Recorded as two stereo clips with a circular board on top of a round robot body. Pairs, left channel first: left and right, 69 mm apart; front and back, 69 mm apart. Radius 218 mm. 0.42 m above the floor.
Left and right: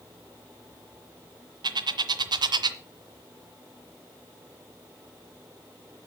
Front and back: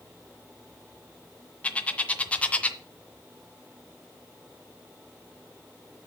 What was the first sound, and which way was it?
A bird, 75° right.